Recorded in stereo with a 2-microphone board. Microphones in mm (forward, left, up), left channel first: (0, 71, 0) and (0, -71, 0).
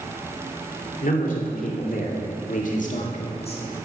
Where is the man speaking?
70° left (ahead or behind), 3 m; by 3.6 s 40° left (ahead or behind), 1.8 m.